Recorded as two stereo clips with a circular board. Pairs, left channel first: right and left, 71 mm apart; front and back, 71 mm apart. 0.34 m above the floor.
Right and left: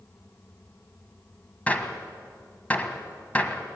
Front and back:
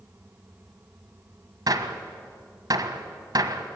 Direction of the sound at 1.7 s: 160° right.